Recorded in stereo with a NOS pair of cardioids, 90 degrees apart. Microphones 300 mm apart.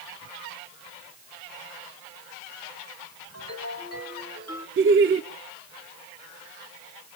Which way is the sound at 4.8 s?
45° right.